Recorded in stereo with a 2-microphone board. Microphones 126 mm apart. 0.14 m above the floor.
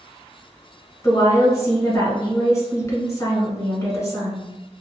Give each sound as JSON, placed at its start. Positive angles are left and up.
{"t": 1.0, "sound": "a woman speaking", "side_deg": 25, "distance_m": 1.2}